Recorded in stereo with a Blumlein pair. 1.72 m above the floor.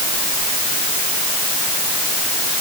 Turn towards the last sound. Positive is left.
No sound to turn to.